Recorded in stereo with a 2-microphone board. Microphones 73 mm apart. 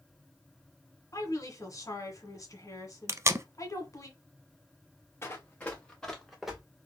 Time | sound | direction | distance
1.1 | a woman speaking | 50° left (ahead or behind) | 1.5 m
3.1 | tape being pulled | 40° right (ahead or behind) | 0.5 m
5.2 | running footsteps | 35° left (ahead or behind) | 1.5 m